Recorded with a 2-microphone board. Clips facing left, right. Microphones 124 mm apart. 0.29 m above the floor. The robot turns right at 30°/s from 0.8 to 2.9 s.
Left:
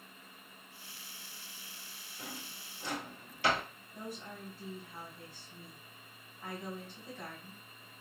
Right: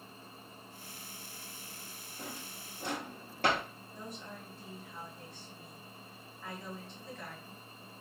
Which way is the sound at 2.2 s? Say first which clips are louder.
Right 2 dB; 35° right (ahead or behind).